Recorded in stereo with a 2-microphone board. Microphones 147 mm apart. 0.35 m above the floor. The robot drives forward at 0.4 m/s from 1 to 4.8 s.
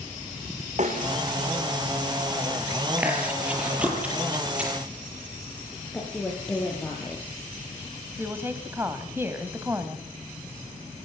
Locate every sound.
0.8 s a snare drum: 50° right (ahead or behind), 6 m
3.0 s chewing: 10° right (ahead or behind), 7.5 m
5.9 s a woman speaking: 10° left (ahead or behind), 7 m
8.2 s a woman speaking: 15° right (ahead or behind), 2.5 m